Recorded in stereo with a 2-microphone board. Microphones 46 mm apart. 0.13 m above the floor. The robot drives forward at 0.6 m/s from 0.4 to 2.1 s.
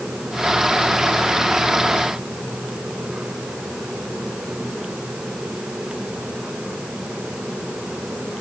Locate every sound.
Only background noise.